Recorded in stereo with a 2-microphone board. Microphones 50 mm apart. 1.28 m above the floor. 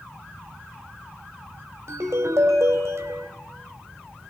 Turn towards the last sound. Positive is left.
turn(degrees=-60)  # may be behind; listen again after turning